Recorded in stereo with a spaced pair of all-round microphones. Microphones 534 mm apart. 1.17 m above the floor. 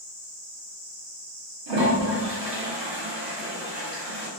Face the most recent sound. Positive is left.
turn(degrees=-50)  # may be behind; listen again after turning